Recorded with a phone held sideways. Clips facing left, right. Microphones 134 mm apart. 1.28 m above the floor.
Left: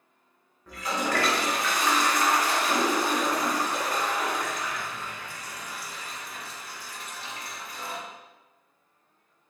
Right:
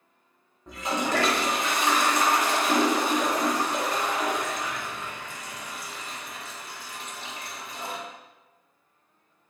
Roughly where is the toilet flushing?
Right.